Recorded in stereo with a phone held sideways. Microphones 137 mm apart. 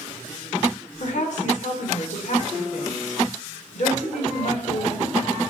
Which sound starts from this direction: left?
A woman speaking, at 1.0 s.